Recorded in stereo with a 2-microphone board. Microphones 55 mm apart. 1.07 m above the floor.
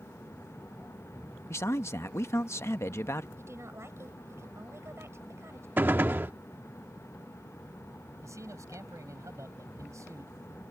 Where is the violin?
I don't hear a violin.